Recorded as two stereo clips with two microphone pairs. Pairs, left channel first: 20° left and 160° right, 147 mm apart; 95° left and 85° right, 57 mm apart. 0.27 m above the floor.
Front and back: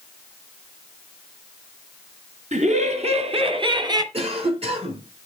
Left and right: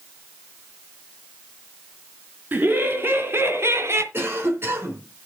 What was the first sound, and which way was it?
Laughter, 140° right.